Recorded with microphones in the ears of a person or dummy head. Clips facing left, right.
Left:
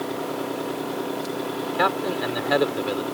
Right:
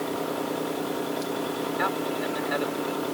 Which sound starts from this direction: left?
A man speaking, at 1.7 s.